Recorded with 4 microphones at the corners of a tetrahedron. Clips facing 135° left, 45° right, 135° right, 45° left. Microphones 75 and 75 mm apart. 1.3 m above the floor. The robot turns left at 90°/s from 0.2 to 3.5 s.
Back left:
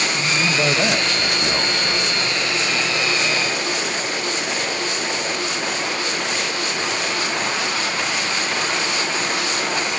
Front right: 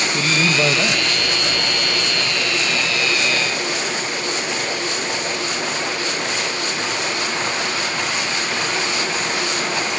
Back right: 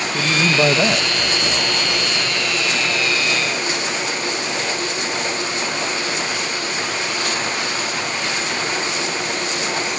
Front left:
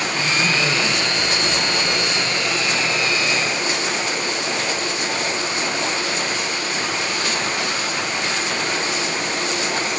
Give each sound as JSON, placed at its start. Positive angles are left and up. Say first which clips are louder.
{"t": 0.1, "sound": "a man speaking", "louder": "front right 4 dB, back right 5 dB", "azimuth_deg": -90, "distance_m": 1.3}